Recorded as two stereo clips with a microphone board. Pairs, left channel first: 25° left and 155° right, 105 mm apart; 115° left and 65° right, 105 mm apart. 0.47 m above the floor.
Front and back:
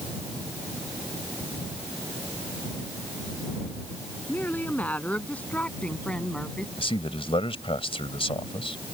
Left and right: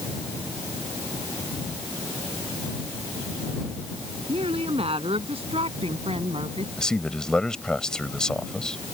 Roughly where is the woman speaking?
Ahead right.